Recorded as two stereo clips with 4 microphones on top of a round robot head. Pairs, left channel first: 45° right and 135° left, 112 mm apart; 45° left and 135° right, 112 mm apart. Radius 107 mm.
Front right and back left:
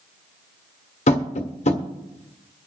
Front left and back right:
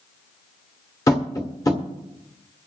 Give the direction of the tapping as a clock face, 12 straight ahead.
1 o'clock.